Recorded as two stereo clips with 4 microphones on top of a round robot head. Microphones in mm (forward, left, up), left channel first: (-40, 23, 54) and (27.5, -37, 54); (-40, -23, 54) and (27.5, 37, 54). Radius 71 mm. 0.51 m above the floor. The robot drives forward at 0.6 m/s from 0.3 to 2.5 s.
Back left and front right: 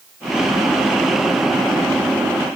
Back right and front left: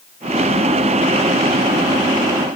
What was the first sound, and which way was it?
Only background noise.